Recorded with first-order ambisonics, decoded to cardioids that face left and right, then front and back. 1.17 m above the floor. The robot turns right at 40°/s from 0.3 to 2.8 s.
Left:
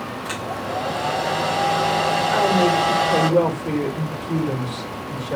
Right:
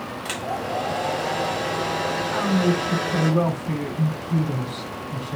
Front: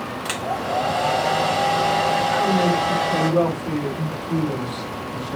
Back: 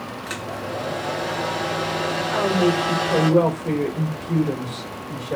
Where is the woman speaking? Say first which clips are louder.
Left 7 dB, front 1 dB; 95° left, 4 m; by 5.4 s 115° left, 4 m.